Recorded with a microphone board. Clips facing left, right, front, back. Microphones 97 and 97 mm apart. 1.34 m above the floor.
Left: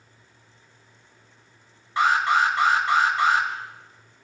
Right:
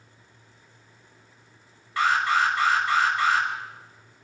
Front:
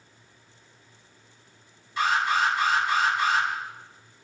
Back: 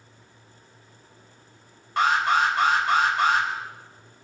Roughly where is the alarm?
Behind.